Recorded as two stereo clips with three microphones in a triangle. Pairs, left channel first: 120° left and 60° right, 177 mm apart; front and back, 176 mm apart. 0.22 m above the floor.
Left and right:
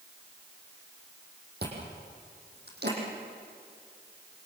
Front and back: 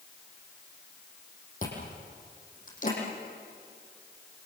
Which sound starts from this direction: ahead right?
Chewing, at 1.6 s.